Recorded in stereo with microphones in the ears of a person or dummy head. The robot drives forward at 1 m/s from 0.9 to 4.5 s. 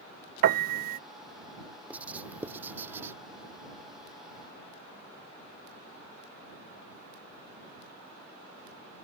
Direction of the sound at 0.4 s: 50° right (ahead or behind).